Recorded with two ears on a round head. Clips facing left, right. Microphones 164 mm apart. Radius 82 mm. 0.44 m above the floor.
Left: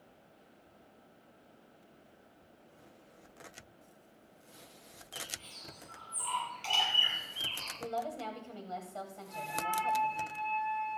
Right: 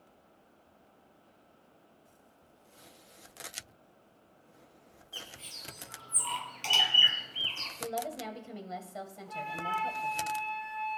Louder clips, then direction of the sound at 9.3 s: Even; 70° right (ahead or behind).